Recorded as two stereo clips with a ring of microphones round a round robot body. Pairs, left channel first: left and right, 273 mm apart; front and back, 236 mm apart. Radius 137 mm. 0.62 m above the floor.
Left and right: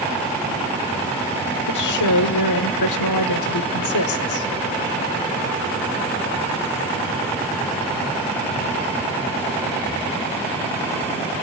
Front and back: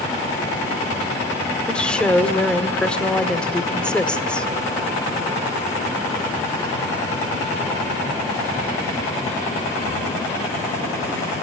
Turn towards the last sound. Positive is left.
turn(degrees=85)